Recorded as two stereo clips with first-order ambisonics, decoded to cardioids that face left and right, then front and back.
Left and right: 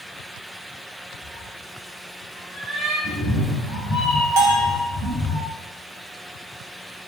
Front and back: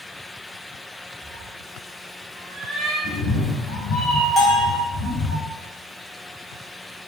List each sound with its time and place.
1.2 s a cat meowing: 70° left, 0.9 m; by 2.9 s 140° right, 1.8 m
3.0 s a cat meowing: 5° left, 1.8 m
4.4 s a bell: 70° right, 0.7 m